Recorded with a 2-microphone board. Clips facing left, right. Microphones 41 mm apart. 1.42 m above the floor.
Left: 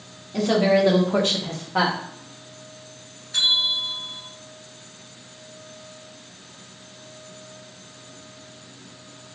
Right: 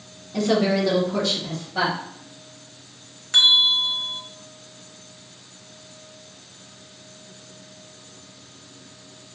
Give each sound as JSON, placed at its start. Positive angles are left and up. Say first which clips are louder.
{"t": 0.3, "sound": "a woman speaking", "louder": "left 2 dB", "side_deg": 0, "distance_m": 0.8}
{"t": 3.3, "sound": "a bell", "louder": "right 5 dB", "side_deg": -85, "distance_m": 0.7}